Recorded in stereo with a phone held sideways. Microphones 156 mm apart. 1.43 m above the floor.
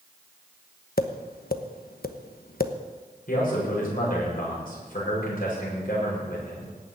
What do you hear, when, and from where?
1.0 s tapping: 75° left (ahead or behind), 1.0 m
3.3 s a man speaking: 65° left (ahead or behind), 7 m